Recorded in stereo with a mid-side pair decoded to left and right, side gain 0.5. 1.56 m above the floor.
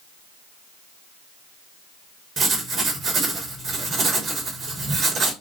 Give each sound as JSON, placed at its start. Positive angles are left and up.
{"t": 2.4, "sound": "writing", "azimuth_deg": -55, "distance_m": 1.5}